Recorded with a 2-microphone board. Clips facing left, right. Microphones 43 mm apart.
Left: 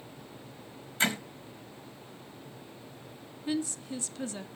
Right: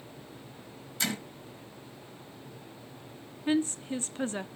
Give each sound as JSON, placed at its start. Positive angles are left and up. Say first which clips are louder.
{"t": 1.0, "sound": "hammering", "louder": "left 4 dB", "side_deg": 35, "distance_m": 3.0}
{"t": 3.5, "sound": "a woman speaking", "louder": "right 5 dB", "side_deg": -40, "distance_m": 0.9}